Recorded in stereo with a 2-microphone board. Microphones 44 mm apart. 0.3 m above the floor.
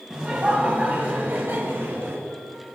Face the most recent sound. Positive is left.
turn(degrees=-65)  # may be behind; listen again after turning